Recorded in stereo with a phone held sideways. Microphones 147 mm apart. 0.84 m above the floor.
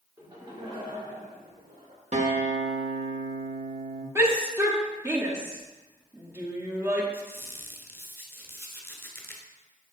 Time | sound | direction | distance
0.2 | laughter | 25° right (ahead or behind) | 1.8 m
2.1 | a guitar | 50° right (ahead or behind) | 0.9 m
4.2 | a shout | 20° right (ahead or behind) | 1.4 m
7.1 | a squeak | 15° left (ahead or behind) | 1.0 m